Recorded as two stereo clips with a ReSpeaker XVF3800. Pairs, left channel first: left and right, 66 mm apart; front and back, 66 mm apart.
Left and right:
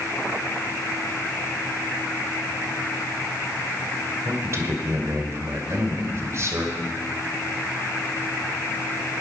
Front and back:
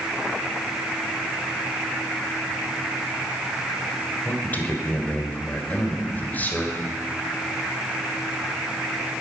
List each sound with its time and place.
4.2 s a man speaking: 60° right, 2.0 m